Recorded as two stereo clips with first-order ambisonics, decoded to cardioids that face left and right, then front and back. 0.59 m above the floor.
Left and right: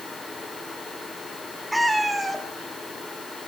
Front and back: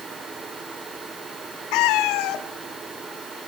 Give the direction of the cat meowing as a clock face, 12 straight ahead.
12 o'clock.